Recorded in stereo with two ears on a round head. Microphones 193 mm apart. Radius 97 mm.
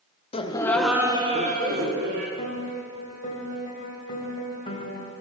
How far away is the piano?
About 3 m.